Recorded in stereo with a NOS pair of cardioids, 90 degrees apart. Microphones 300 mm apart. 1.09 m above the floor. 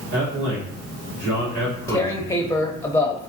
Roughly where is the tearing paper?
Ahead.